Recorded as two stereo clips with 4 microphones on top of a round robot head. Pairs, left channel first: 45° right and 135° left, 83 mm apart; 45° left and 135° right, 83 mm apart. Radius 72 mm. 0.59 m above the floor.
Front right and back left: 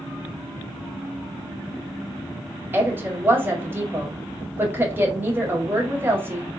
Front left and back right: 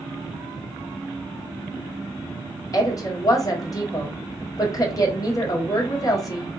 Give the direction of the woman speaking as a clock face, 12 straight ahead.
9 o'clock.